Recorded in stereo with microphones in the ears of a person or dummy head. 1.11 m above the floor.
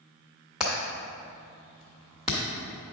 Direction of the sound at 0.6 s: Centre (ahead or behind).